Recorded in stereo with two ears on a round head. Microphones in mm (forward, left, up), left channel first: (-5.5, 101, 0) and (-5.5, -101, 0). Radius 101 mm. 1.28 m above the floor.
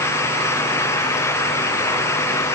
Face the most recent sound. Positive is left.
No sound to turn to.